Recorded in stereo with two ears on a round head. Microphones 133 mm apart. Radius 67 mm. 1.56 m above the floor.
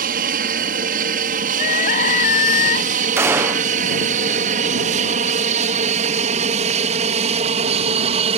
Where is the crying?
60° left (ahead or behind).